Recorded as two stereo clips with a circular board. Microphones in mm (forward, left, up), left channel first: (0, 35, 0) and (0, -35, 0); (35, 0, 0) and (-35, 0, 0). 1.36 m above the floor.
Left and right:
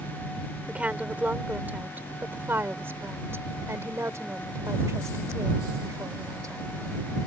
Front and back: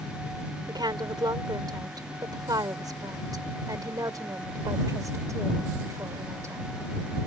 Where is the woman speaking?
165° right; by 6.6 s 130° right.